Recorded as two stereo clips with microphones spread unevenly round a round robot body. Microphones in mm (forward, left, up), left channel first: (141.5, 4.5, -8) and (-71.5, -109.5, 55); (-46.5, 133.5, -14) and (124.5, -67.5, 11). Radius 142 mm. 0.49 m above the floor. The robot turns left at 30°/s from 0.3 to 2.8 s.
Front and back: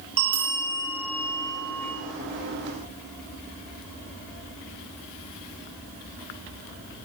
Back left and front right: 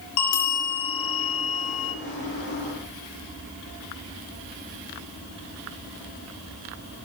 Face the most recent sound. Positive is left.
turn(degrees=90)